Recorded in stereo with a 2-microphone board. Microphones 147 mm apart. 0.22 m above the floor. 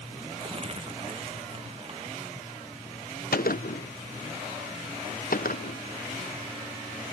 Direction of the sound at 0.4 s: 40° right (ahead or behind).